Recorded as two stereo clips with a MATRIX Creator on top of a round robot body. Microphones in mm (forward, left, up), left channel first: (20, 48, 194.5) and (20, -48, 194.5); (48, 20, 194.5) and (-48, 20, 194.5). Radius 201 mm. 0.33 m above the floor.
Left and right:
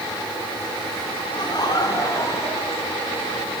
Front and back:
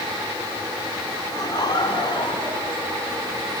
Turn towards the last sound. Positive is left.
turn(degrees=20)